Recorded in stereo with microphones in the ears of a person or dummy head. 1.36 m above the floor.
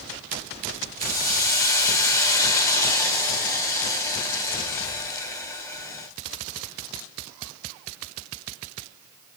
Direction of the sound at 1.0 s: 20° left (ahead or behind).